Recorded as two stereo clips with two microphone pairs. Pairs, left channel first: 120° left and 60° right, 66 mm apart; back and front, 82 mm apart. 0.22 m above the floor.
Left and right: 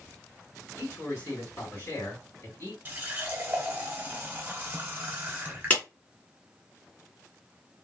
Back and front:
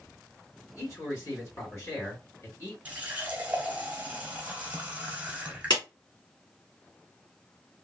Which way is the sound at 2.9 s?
50° right.